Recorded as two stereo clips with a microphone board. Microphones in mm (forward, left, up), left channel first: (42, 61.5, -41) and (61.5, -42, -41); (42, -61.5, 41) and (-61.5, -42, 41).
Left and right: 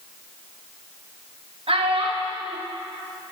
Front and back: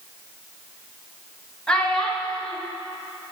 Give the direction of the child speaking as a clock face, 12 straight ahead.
3 o'clock.